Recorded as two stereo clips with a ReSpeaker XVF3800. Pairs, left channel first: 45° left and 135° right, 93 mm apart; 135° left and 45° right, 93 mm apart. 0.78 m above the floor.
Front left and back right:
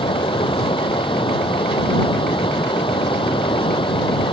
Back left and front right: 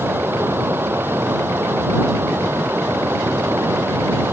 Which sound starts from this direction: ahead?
Running water, at 0.0 s.